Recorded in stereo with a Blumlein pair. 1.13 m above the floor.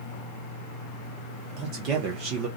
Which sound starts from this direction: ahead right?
A man speaking, at 1.6 s.